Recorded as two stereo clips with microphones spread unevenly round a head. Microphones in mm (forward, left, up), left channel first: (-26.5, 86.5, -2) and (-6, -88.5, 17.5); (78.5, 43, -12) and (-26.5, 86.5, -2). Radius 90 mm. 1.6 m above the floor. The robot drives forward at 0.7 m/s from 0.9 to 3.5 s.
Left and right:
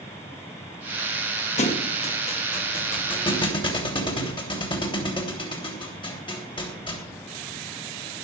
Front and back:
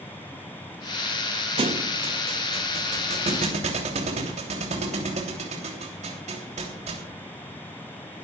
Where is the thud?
145° left, 2.0 m; by 7.2 s 160° left, 3 m.